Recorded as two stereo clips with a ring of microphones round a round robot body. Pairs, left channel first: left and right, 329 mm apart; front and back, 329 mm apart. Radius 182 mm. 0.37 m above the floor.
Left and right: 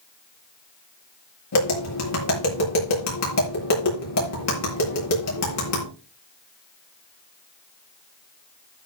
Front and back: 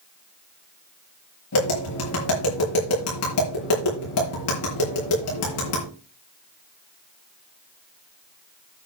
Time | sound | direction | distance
1.5 | tapping | 50° left | 6.5 m